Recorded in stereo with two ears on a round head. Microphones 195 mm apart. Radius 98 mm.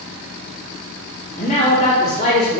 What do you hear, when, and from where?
1.4 s a man speaking: 30° left (ahead or behind), 2.5 m